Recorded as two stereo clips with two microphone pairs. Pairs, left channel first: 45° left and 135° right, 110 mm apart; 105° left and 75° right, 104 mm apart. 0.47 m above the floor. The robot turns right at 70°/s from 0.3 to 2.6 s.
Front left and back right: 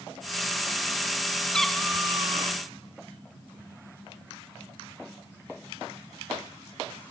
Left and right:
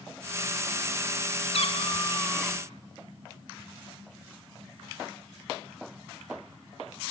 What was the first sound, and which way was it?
A cat meowing, 125° left.